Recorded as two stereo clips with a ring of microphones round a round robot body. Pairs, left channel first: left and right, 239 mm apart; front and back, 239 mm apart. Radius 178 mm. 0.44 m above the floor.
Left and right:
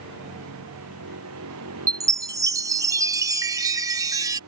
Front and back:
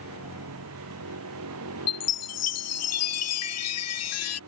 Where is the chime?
10° right.